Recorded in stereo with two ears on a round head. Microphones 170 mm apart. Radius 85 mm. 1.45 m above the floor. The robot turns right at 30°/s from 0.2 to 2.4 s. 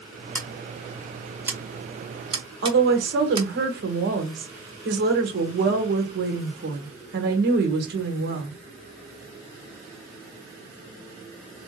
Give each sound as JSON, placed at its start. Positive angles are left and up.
{"t": 0.3, "sound": "scissors", "side_deg": 10, "distance_m": 0.8}
{"t": 2.6, "sound": "a woman speaking", "side_deg": -60, "distance_m": 1.3}